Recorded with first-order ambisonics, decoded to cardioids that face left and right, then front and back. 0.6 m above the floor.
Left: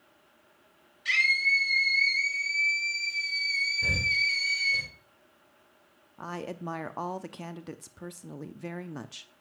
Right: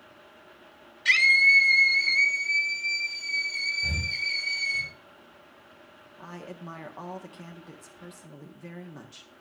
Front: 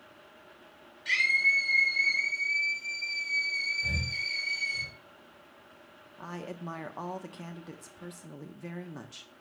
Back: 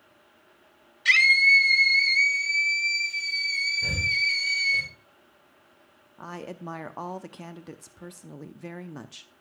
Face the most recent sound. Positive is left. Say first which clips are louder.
# left 5 dB, back 3 dB
turn(degrees=115)